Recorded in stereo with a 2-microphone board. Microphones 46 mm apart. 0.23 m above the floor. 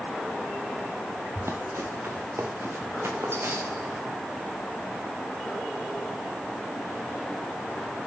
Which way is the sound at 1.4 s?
80° right.